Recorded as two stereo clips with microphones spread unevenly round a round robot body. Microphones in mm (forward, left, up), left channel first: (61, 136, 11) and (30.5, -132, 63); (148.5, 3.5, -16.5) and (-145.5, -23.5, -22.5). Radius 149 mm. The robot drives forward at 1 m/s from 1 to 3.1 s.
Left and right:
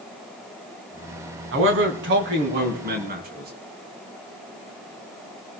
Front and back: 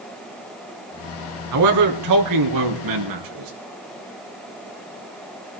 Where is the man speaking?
145° right, 3 m; by 3.5 s 160° right, 4.5 m.